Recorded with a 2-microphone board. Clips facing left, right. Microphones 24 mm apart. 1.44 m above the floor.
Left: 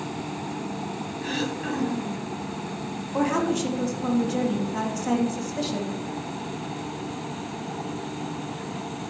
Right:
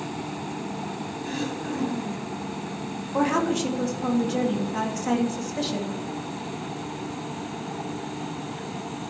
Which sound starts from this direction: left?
Throat clearing, at 1.2 s.